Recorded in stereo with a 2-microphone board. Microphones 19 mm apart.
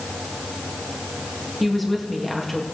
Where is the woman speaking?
5° left (ahead or behind), 2.0 m.